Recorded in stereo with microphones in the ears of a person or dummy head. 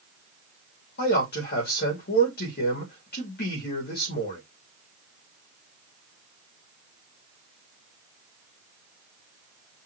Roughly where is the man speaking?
Left.